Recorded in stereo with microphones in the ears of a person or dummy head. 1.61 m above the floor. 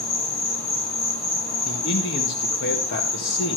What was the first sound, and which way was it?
An insect, 70° left (ahead or behind).